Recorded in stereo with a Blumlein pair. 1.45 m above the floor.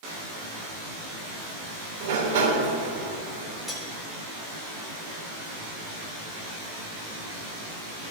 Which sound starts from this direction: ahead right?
A sliding door, at 2.0 s.